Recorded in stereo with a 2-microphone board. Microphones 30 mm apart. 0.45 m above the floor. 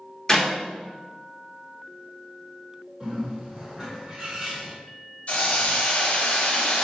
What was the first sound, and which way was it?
A clap, 20° left (ahead or behind).